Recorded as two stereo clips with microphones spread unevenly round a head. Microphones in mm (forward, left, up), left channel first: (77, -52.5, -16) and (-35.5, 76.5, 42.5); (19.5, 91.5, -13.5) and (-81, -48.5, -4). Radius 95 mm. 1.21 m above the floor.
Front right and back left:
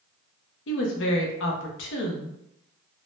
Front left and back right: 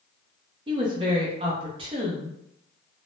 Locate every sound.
0.7 s a woman speaking: 60° right, 0.7 m